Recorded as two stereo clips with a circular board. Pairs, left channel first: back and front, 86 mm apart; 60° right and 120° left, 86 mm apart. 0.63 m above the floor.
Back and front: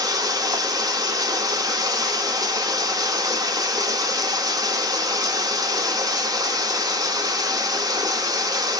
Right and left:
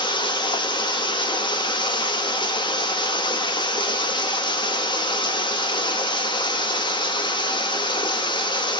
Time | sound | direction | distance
0.0 | running water | 40° right | 0.9 m